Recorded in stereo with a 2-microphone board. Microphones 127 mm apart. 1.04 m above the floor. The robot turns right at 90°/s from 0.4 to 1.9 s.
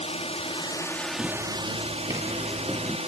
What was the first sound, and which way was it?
A drone, 115° left.